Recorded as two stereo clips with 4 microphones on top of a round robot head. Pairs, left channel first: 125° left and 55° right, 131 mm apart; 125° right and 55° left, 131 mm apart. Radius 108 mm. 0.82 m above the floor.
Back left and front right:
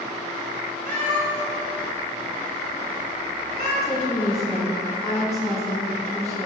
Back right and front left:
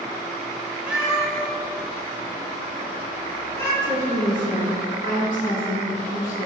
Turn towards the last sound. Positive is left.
turn(degrees=-120)